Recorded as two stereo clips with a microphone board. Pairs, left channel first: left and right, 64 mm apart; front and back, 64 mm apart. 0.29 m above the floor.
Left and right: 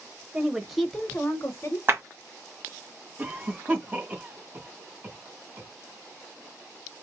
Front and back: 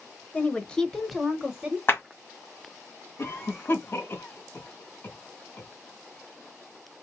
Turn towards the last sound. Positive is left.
turn(degrees=-40)